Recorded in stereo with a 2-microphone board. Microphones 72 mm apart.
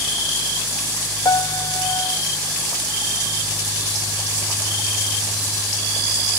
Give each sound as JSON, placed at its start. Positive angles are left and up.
{"t": 1.2, "sound": "a piano", "side_deg": 60, "distance_m": 0.8}